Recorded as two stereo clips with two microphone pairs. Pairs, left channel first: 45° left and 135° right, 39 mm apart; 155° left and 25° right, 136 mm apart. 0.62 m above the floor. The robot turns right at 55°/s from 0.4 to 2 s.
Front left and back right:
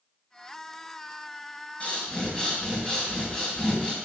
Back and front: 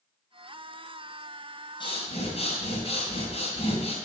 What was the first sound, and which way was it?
Breathing, 105° left.